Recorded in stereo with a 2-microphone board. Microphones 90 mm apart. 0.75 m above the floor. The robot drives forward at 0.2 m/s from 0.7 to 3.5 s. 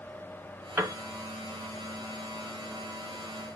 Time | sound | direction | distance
0.8 | a piano | 25° right (ahead or behind) | 0.6 m